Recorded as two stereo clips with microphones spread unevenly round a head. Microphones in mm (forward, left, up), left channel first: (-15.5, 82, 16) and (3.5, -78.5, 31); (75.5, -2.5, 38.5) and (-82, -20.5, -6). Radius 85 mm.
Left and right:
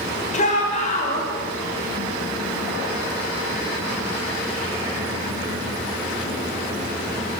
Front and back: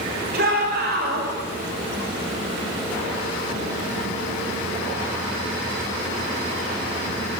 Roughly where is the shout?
Behind left.